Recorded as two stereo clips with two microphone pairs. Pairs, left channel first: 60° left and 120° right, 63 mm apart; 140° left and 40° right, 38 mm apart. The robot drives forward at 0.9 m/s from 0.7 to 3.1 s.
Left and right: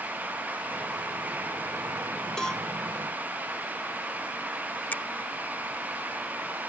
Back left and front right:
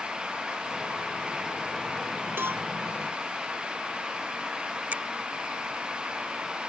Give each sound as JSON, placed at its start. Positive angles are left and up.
{"t": 2.4, "sound": "a cowbell", "azimuth_deg": -20}
{"t": 4.9, "sound": "a finger snap", "azimuth_deg": 0}